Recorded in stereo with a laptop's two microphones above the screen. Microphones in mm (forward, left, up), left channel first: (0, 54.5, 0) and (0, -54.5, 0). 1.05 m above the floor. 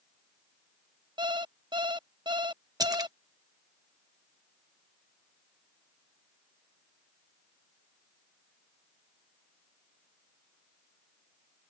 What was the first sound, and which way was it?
An alarm clock, 45° right (ahead or behind).